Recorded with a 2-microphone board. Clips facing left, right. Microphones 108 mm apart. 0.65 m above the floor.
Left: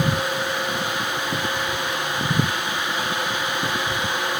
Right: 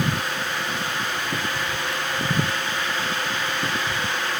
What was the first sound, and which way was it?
Only background noise.